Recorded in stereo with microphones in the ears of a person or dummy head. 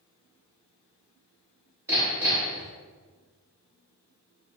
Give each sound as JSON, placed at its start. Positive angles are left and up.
{"t": 1.9, "sound": "hammering", "side_deg": -15, "distance_m": 2.5}